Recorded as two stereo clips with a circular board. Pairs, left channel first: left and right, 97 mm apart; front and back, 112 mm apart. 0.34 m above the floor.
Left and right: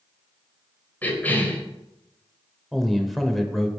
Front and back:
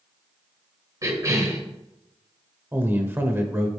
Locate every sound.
1.0 s a cough: 145° left, 1.4 m
2.7 s a man speaking: 175° left, 0.8 m